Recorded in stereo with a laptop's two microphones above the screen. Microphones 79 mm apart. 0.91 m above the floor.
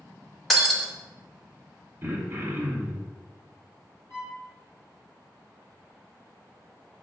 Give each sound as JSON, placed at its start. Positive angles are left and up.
{"t": 0.5, "sound": "breaking glass", "side_deg": 0, "distance_m": 0.6}
{"t": 2.0, "sound": "throat clearing", "side_deg": -25, "distance_m": 0.9}
{"t": 4.1, "sound": "a violin", "side_deg": 35, "distance_m": 1.0}